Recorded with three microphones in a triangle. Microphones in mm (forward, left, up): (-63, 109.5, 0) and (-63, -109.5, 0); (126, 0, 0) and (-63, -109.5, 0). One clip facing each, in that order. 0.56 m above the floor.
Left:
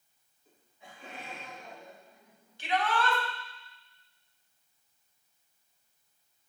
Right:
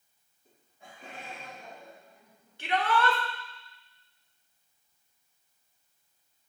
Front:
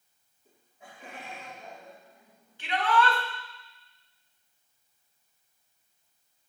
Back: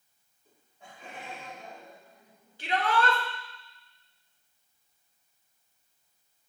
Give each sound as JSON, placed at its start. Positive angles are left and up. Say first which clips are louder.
{"t": 0.5, "sound": "laughter", "louder": "right 1 dB, front 1 dB", "azimuth_deg": -45, "distance_m": 3.5}
{"t": 2.6, "sound": "a shout", "louder": "right 2 dB, front 1 dB", "azimuth_deg": -105, "distance_m": 1.7}